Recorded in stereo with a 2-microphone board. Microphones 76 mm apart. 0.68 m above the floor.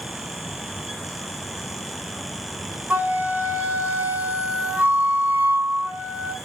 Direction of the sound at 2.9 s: 25° right (ahead or behind).